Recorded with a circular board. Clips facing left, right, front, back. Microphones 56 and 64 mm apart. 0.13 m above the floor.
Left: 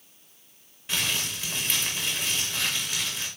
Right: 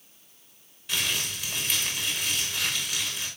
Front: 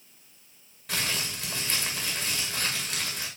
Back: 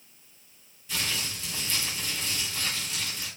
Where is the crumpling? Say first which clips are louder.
Even, front 1 dB; 25° left, 7 m.